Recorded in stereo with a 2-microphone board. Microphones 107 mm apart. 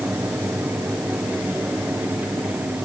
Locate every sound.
Only background noise.